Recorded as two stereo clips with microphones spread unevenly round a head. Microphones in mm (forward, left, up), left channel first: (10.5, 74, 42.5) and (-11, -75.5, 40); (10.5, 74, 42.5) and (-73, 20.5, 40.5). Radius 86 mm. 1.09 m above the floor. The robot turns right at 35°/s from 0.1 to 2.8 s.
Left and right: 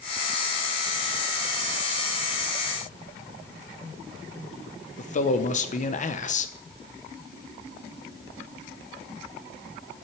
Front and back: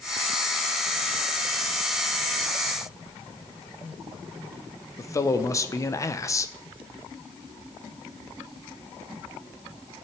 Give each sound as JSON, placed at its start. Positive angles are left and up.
{"t": 5.0, "sound": "a man speaking", "azimuth_deg": 80, "distance_m": 0.9}